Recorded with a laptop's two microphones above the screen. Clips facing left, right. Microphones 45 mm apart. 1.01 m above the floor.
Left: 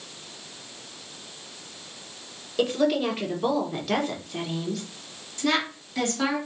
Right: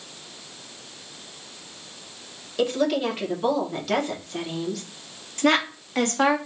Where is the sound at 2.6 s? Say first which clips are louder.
Even; centre (ahead or behind), 1.0 m.